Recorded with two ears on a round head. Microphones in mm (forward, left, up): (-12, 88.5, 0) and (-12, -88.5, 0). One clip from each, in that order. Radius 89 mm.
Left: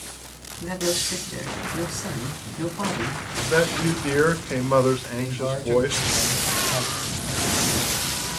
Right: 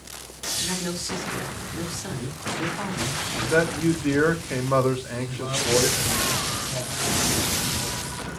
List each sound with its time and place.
0.6 s a man speaking: 10° left (ahead or behind), 3.5 m
3.4 s a man speaking: 5° left (ahead or behind), 1.2 m
5.2 s a man speaking: 60° left (ahead or behind), 3 m